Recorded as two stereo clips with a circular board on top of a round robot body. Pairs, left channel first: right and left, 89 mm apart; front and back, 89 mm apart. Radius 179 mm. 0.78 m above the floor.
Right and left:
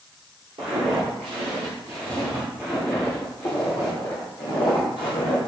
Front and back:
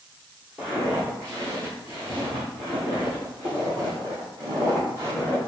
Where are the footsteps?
105° left, 1.4 m; by 5.4 s 120° right, 1.7 m.